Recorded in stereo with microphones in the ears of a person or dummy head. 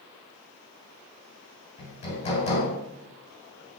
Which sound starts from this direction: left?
Hammering, at 1.8 s.